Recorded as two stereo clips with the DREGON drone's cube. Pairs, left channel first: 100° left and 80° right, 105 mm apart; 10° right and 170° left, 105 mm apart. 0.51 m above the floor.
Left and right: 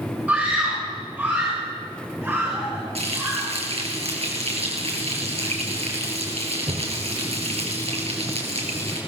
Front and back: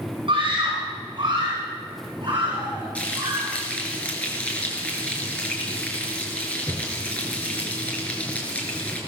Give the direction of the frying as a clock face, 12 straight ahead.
3 o'clock.